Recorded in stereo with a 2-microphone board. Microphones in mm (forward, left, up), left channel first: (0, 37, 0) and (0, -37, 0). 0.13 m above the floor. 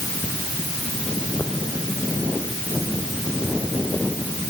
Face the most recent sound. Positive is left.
No sound to turn to.